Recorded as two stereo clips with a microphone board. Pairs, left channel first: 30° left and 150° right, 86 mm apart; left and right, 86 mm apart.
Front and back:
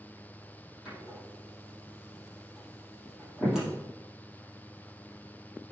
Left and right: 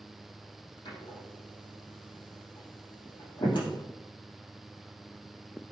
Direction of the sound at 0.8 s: 125° left.